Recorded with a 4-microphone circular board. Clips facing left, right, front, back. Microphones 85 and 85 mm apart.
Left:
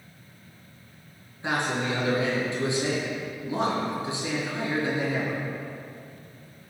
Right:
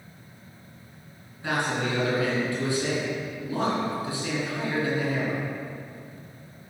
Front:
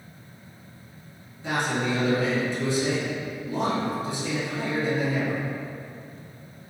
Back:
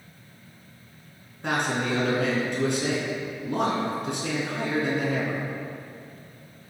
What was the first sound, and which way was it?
A man speaking, 160° left.